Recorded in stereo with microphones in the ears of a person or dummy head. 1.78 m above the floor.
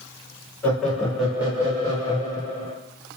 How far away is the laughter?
About 1.2 m.